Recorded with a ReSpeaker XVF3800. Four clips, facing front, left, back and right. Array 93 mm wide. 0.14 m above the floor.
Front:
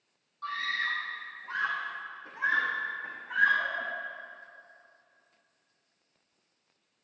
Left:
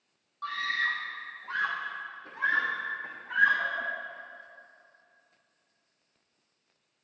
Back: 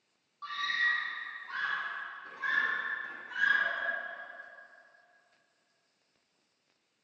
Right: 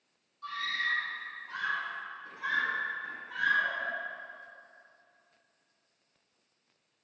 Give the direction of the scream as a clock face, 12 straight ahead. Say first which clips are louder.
Left 3 dB, even; 9 o'clock.